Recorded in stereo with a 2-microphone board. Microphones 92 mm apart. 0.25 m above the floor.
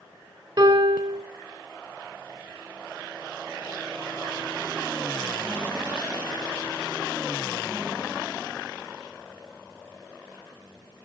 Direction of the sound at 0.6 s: 55° right (ahead or behind).